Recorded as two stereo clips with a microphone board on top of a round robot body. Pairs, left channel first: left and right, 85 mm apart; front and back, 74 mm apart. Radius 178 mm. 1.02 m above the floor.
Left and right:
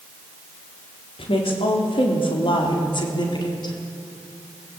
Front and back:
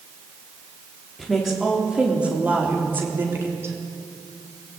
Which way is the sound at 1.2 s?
90° left.